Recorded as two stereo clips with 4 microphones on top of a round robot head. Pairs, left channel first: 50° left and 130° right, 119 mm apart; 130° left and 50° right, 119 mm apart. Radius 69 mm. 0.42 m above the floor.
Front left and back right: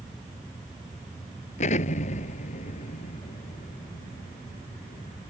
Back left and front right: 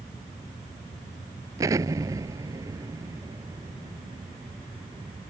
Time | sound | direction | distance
1.6 | an explosion | 20° left | ?